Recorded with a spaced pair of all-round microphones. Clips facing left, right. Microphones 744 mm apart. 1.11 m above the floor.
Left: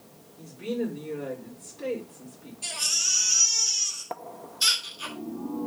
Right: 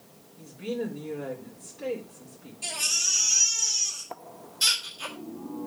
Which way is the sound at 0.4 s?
30° right (ahead or behind).